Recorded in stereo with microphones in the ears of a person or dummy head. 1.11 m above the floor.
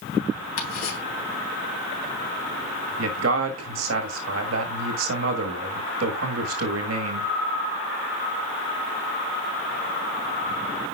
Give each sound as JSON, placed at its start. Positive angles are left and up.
{"t": 0.6, "sound": "ticking", "side_deg": 75, "distance_m": 3.0}
{"t": 3.0, "sound": "a man speaking", "side_deg": -70, "distance_m": 1.6}